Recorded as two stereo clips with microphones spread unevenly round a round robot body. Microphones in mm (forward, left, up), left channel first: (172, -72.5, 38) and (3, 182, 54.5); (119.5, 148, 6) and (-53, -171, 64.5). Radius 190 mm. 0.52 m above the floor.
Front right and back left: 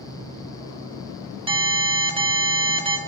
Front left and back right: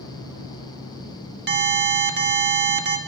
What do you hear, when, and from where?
1.5 s an alarm: 170° right, 1.8 m